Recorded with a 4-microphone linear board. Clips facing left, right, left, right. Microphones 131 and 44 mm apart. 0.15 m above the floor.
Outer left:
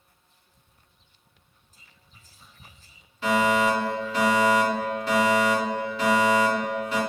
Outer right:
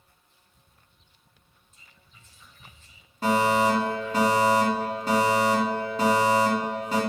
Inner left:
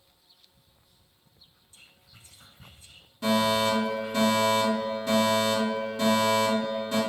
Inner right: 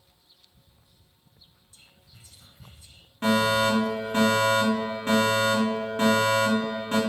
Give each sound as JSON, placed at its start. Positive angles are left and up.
{"t": 1.7, "sound": "whispering", "side_deg": 35, "distance_m": 1.2}
{"t": 3.2, "sound": "a fire alarm", "side_deg": -40, "distance_m": 3.0}